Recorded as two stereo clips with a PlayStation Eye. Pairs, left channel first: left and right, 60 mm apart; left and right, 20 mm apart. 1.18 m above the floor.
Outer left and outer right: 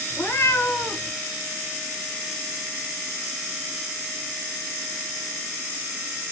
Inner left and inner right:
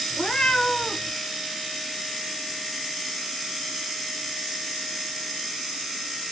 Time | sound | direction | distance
0.1 | a cat meowing | 45° left (ahead or behind) | 2.0 m